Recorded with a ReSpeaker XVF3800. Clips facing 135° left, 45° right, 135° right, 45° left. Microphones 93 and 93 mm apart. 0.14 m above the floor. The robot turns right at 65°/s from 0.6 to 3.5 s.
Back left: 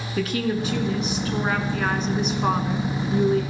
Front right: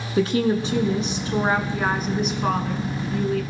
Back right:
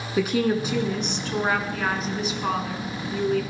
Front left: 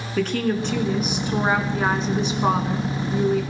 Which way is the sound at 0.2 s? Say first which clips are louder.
Front right 4 dB, even; 65° right.